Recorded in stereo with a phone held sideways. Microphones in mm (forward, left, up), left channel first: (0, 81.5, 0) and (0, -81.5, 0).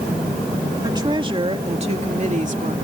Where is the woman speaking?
25° right (ahead or behind); by 2.7 s 50° right (ahead or behind).